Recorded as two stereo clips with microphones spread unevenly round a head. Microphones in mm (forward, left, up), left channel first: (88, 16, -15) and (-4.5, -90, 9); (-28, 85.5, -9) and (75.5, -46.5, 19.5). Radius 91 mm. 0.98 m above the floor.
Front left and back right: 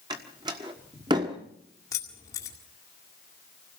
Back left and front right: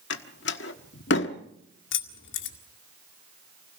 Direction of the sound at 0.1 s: 160° left.